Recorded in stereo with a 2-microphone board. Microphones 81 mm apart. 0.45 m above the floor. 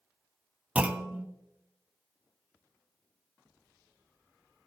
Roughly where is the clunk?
Centre.